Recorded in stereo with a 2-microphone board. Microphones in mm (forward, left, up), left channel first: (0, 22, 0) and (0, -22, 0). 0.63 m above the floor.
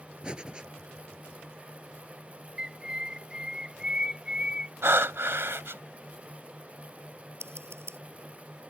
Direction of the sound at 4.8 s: 70° right (ahead or behind).